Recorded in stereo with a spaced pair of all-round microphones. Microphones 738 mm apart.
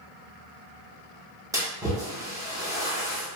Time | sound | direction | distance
1.5 | a splash | 5° right (ahead or behind) | 0.7 m